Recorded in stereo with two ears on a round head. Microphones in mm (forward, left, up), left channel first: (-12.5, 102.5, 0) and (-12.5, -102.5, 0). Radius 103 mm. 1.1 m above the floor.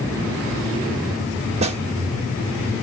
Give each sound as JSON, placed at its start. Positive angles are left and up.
{"t": 1.6, "sound": "a snare drum", "side_deg": -30, "distance_m": 1.6}